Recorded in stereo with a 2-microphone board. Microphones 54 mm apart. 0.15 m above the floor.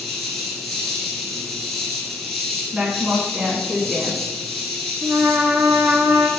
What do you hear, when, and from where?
0.0 s an insect: centre (ahead or behind), 1.0 m
2.7 s a woman speaking: 20° right (ahead or behind), 1.1 m
5.0 s a trumpet: 55° right (ahead or behind), 0.7 m